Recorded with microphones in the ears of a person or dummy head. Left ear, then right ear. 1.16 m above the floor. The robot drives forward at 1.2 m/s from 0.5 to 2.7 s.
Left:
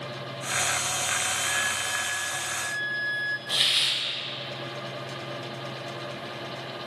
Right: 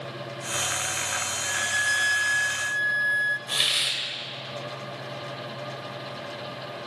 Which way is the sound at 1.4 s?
35° right (ahead or behind).